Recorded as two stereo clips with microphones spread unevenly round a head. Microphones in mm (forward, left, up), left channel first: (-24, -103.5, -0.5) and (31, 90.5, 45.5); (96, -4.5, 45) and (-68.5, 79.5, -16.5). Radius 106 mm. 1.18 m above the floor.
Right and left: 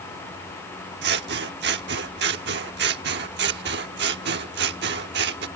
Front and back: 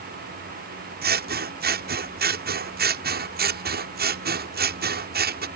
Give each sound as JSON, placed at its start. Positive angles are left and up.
{"t": 1.0, "sound": "scissors", "azimuth_deg": 115}